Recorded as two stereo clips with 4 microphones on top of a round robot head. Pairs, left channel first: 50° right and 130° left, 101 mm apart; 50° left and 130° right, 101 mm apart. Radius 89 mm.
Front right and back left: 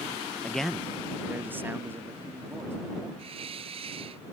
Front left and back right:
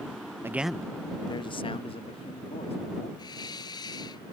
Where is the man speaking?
115° right; by 3.1 s 65° left.